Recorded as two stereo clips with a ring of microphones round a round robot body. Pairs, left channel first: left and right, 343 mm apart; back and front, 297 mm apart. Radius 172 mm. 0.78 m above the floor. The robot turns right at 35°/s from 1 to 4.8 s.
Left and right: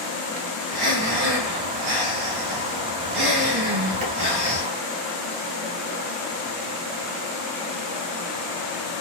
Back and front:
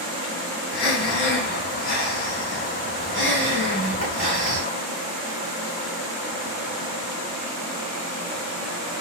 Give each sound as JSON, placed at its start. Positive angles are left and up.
{"t": 0.7, "sound": "breathing", "azimuth_deg": -155, "distance_m": 2.5}